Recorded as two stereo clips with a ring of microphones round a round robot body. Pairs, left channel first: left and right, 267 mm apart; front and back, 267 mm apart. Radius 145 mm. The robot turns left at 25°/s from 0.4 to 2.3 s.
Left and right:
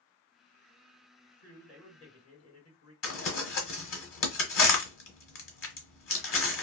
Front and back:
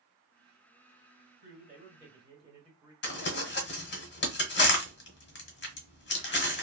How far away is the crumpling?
About 1.1 m.